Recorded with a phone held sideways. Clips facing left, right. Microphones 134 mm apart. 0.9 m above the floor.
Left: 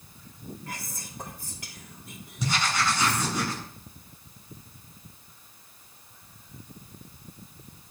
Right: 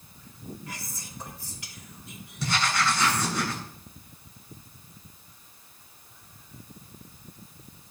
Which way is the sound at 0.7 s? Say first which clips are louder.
Left 1 dB; 55° left (ahead or behind).